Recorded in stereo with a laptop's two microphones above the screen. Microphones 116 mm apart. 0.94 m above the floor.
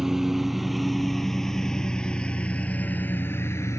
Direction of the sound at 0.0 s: 5° right (ahead or behind).